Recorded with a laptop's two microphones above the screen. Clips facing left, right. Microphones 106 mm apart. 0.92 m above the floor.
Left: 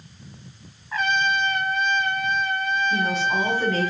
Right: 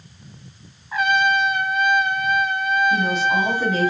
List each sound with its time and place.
0.9 s a trumpet: 10° right (ahead or behind), 1.0 m
2.9 s a woman speaking: 5° right (ahead or behind), 4 m